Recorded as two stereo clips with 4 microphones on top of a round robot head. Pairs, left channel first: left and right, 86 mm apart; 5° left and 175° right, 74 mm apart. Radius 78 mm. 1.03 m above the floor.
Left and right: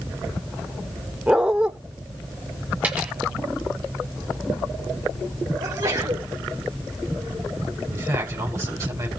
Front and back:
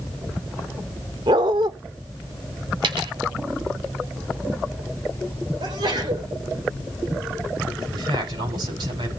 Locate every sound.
1.3 s a dog barking: 170° right, 0.8 m
2.8 s a dropped coin: 170° right, 1.7 m
5.6 s a sneeze: 145° right, 4 m
7.9 s a man speaking: 155° right, 8 m